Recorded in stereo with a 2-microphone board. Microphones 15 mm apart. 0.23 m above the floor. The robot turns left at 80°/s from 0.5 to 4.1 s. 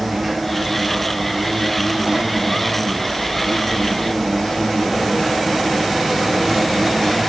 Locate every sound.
0.0 s an insect: 5° right, 5 m; by 7.3 s 70° left, 5 m